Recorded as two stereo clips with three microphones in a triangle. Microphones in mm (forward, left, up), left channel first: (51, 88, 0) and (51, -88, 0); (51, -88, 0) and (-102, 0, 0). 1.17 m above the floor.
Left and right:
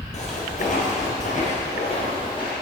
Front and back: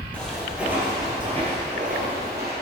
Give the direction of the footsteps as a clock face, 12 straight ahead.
10 o'clock.